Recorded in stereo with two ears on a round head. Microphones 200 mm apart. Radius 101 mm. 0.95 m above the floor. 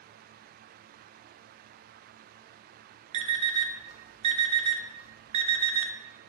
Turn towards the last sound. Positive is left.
turn(degrees=-25)  # may be behind; listen again after turning